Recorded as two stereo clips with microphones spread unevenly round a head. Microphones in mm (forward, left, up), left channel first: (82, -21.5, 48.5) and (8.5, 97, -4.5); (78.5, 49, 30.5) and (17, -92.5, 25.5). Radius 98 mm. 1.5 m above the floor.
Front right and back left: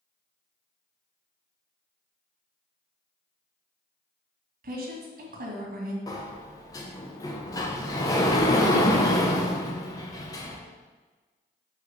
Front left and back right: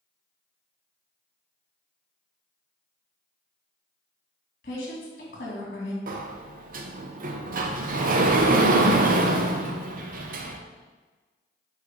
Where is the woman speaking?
115° left, 1.8 m.